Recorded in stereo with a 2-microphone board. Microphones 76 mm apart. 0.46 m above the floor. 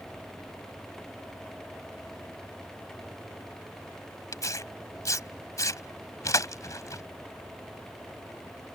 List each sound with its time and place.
4.3 s tearing paper: 50° left (ahead or behind)